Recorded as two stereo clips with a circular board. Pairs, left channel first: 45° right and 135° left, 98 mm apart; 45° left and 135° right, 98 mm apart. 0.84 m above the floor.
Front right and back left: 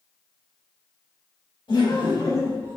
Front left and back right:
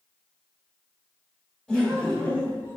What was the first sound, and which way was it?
Laughter, 40° right.